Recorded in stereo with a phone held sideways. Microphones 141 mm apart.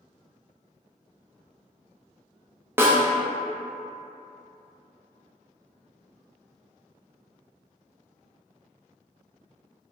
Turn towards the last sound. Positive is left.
turn(degrees=-15)  # may be behind; listen again after turning